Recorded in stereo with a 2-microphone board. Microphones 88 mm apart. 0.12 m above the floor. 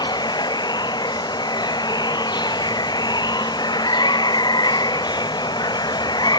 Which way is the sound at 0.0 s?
55° left (ahead or behind).